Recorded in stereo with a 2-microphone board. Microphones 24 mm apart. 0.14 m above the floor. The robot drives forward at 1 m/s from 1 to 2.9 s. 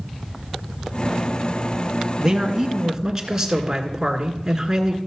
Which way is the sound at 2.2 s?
20° right (ahead or behind).